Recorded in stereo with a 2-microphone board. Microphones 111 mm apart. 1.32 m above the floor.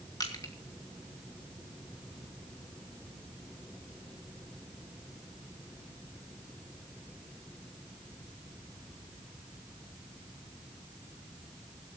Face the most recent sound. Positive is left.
turn(degrees=40)  # may be behind; listen again after turning